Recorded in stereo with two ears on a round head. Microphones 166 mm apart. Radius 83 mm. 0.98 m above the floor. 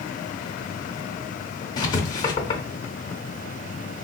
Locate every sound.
1.8 s writing: 25° left (ahead or behind), 0.7 m